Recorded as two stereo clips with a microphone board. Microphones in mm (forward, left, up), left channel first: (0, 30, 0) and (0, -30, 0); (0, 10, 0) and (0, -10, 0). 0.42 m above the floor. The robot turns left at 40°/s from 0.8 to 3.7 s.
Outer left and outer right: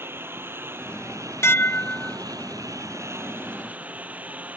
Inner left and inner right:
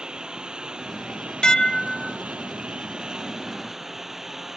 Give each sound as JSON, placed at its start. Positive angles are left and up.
{"t": 0.0, "sound": "a lawn mower", "azimuth_deg": -40}
{"t": 1.4, "sound": "dishes clattering", "side_deg": 50}